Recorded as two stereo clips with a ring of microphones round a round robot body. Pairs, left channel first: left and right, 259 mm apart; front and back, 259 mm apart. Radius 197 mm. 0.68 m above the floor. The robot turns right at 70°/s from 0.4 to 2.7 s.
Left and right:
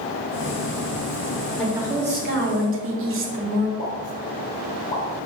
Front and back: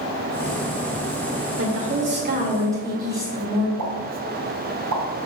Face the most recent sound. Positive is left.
turn(degrees=170)